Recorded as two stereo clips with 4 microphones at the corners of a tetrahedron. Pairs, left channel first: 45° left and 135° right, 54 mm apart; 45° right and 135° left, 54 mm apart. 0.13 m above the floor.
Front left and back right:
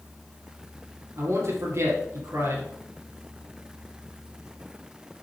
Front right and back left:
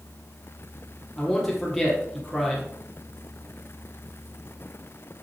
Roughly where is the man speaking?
Behind right.